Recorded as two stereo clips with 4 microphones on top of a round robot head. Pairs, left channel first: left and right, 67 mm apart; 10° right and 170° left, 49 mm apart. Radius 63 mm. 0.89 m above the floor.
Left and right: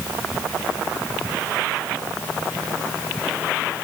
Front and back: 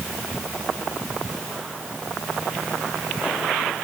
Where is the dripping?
I don't hear dripping.